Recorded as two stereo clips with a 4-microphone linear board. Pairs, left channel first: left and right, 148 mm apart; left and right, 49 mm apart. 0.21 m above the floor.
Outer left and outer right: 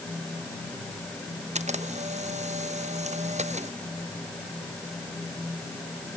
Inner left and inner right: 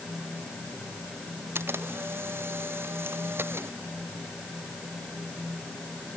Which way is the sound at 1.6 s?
55° right (ahead or behind).